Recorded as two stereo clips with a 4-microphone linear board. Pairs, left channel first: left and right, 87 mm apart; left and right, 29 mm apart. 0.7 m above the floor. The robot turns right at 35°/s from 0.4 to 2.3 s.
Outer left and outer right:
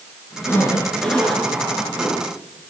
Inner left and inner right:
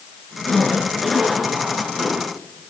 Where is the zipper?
150° left, 5.5 m; by 2.2 s 150° right, 5.5 m.